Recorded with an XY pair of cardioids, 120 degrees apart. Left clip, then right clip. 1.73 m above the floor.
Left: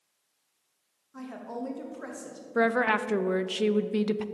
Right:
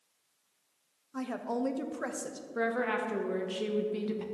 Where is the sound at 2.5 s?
50° left, 0.6 m.